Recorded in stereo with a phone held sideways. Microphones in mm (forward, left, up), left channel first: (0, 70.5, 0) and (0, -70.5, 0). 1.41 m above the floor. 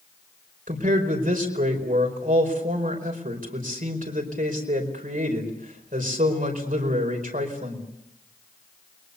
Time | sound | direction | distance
0.7 | a man speaking | 75° right (ahead or behind) | 5 m